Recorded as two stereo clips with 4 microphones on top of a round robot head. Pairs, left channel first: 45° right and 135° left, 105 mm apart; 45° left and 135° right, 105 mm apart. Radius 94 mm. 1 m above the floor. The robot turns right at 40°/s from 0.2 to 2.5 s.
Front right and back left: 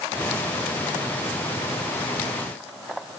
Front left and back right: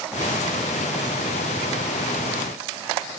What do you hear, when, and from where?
Only background noise.